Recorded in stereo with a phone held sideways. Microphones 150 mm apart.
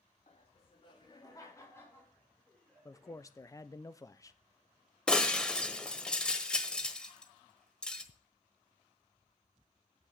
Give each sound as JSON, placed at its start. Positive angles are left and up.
{"t": 0.3, "sound": "laughter", "side_deg": 50, "distance_m": 2.5}
{"t": 2.9, "sound": "a man speaking", "side_deg": 25, "distance_m": 0.8}
{"t": 5.1, "sound": "breaking glass", "side_deg": 5, "distance_m": 1.3}